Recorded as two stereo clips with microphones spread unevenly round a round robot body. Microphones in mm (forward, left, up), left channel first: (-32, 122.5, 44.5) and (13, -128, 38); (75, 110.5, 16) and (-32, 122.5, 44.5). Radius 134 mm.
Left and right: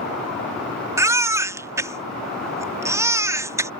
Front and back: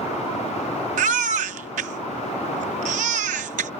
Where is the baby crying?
160° right.